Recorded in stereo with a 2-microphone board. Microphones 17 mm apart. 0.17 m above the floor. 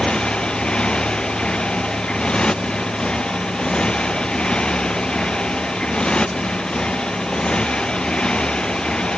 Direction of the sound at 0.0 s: 65° left (ahead or behind).